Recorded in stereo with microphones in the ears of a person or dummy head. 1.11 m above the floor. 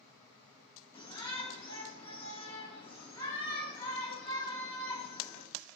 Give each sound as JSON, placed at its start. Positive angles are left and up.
{"t": 0.9, "sound": "a shout", "side_deg": 10, "distance_m": 9.5}